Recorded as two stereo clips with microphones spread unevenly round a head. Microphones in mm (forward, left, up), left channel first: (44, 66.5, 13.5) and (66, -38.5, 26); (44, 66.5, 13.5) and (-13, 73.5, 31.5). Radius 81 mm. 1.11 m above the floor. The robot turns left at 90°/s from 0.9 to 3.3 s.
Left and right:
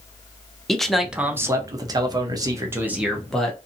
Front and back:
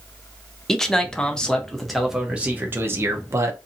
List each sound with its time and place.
0.7 s a man speaking: 30° left, 0.7 m; by 3.6 s 170° left, 0.7 m